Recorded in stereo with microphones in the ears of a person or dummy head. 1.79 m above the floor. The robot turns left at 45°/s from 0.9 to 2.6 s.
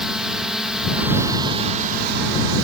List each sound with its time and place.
0.0 s a drone: straight ahead; by 2.6 s 75° right